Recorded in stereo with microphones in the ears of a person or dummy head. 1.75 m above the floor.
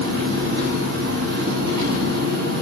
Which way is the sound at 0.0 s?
60° right (ahead or behind).